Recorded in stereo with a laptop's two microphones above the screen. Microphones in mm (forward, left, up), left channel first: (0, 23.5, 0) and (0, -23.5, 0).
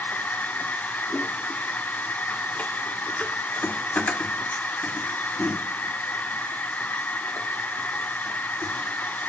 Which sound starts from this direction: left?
A machine running, at 0.0 s.